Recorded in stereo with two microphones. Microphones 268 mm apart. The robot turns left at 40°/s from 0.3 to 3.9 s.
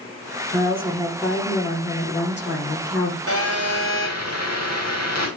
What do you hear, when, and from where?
0.5 s a woman speaking: 150° right, 8.5 m; by 3.2 s 105° left, 8.5 m
3.3 s a phone buzzing: 60° left (ahead or behind), 6 m; by 5.3 s 85° left, 6 m